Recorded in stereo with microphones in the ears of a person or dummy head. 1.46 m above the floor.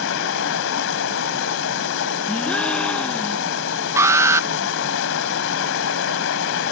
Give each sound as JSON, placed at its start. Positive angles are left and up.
{"t": 0.0, "sound": "running water", "side_deg": 70}
{"t": 2.3, "sound": "a gasp", "side_deg": 0}
{"t": 4.0, "sound": "an alarm", "side_deg": -10}